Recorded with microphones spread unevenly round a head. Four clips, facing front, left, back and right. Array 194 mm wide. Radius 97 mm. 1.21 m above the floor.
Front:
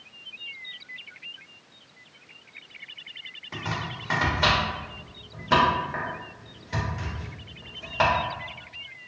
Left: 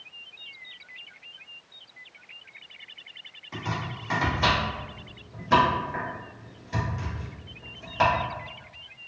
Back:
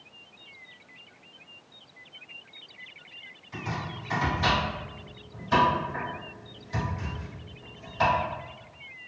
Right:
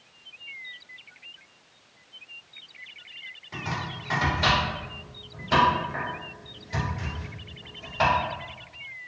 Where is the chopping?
5° left, 1.7 m.